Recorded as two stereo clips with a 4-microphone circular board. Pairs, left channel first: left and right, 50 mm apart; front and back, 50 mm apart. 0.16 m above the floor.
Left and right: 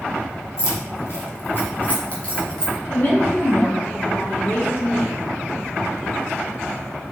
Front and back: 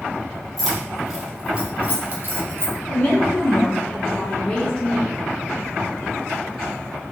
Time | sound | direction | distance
0.6 | keys jangling | 85° left | 1.6 m
2.9 | a woman speaking | 60° left | 1.6 m